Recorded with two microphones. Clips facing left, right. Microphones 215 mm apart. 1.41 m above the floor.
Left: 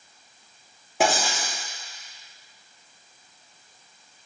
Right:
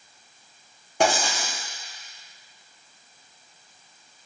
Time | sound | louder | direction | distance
1.0 | writing | right 1 dB | 5° left (ahead or behind) | 1.0 m